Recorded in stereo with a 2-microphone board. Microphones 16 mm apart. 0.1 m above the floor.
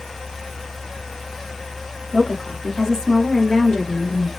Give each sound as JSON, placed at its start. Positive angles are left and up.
{"t": 2.1, "sound": "a woman speaking", "side_deg": 25, "distance_m": 2.5}